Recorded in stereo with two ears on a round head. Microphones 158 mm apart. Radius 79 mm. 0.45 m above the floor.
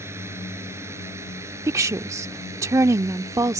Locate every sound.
0.0 s a drone: 15° right (ahead or behind)
1.7 s a woman speaking: 15° right (ahead or behind)